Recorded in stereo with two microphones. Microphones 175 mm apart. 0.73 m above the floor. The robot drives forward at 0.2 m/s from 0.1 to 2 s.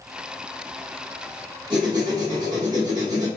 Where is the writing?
25° right (ahead or behind), 1.4 m.